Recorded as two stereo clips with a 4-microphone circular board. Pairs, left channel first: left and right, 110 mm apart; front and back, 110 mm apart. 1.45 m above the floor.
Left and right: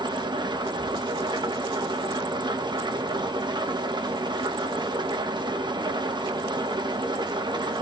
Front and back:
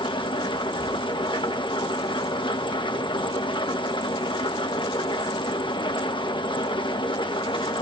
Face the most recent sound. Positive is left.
turn(degrees=-40)